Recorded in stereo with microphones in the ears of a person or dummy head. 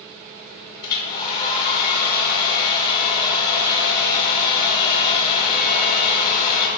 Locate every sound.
0.8 s a hair dryer: 30° left (ahead or behind), 0.7 m